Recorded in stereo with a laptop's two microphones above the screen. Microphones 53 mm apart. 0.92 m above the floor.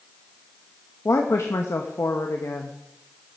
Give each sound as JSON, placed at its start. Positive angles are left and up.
{"t": 1.1, "sound": "a woman speaking", "side_deg": 65, "distance_m": 0.7}